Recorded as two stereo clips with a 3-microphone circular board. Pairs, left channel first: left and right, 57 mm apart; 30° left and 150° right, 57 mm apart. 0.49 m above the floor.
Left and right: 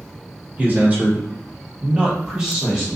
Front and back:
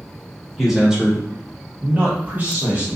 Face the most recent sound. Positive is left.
turn(degrees=-170)